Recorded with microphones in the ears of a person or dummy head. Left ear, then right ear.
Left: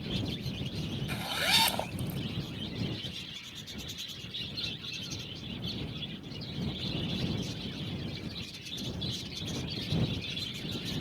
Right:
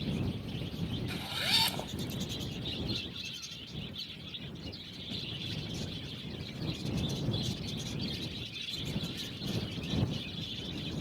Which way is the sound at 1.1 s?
20° left (ahead or behind).